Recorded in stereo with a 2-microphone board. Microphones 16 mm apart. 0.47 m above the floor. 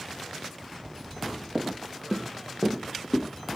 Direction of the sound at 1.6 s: 55° right (ahead or behind).